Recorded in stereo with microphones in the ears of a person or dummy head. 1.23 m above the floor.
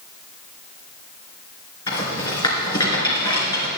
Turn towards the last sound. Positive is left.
turn(degrees=20)  # may be behind; listen again after turning